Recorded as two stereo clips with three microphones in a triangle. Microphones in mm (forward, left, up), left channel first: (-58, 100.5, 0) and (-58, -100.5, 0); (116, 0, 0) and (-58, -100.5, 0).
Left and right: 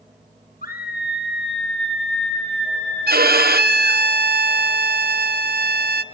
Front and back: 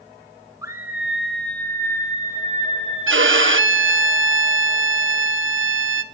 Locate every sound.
0.6 s a scream: 135° left, 1.7 m; by 4.0 s 85° left, 4 m
3.1 s a violin: 130° right, 0.8 m